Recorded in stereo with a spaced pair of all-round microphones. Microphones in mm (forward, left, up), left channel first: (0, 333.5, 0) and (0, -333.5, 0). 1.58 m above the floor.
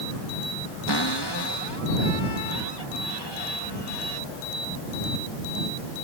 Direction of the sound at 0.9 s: 35° left (ahead or behind).